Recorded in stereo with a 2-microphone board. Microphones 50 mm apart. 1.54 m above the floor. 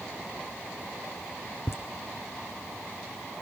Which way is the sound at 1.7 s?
60° left (ahead or behind).